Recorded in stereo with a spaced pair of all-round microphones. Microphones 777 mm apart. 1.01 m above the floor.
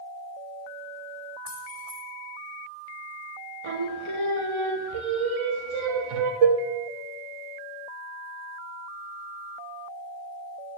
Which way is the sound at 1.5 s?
55° right (ahead or behind).